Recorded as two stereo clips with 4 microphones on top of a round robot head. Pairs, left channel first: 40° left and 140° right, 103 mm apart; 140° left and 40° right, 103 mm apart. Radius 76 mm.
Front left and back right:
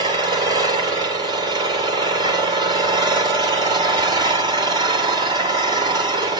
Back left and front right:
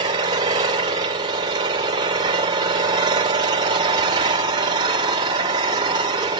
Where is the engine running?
95° right, 2 m.